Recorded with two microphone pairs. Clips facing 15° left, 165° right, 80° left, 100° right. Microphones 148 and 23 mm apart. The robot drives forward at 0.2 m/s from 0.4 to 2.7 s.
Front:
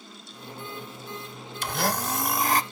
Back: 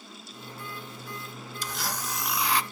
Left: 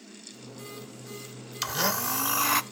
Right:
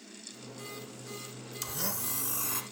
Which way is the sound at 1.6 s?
40° left.